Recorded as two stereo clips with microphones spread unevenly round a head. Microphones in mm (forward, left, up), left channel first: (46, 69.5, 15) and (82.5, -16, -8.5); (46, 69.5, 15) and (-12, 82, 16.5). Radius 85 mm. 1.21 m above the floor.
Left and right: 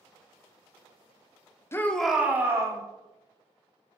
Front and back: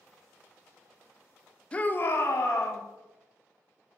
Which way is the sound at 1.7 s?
45° left.